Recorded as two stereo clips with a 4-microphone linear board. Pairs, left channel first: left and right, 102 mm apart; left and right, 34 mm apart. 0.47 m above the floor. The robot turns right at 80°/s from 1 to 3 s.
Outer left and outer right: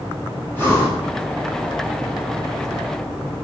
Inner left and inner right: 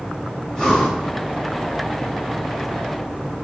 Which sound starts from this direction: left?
Breathing, at 0.5 s.